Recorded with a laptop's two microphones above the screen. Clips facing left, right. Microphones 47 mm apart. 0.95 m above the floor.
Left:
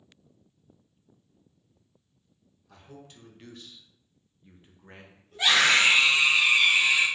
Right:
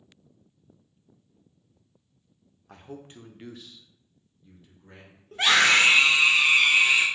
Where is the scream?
65° right (ahead or behind), 2.0 m.